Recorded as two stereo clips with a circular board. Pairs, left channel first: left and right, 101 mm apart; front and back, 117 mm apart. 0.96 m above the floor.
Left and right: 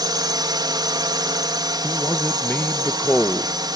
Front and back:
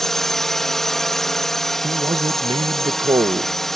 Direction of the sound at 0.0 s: 85° right.